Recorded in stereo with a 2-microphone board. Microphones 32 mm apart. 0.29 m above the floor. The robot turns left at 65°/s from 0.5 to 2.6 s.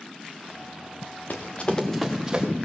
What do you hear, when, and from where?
1.3 s running footsteps: 65° left (ahead or behind), 2.5 m; by 2.5 s 30° right (ahead or behind), 3.5 m